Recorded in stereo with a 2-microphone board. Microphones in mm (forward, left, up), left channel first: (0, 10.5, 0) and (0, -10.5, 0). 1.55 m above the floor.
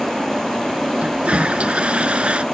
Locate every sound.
1.0 s a toilet flushing: 75° right (ahead or behind)